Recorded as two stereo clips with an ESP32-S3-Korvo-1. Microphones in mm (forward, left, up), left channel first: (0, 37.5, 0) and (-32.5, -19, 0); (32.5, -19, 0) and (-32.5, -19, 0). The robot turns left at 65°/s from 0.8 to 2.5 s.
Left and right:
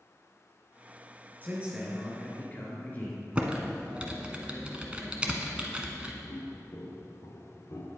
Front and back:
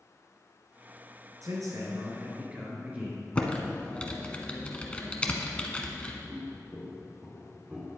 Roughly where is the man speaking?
Behind.